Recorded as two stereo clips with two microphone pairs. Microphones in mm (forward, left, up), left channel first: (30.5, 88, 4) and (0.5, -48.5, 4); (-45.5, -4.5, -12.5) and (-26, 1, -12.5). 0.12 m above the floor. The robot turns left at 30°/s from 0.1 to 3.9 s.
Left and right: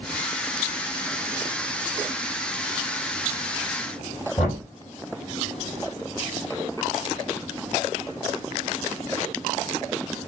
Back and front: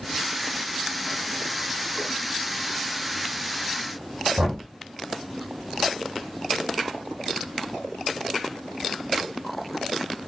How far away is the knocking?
About 3.5 m.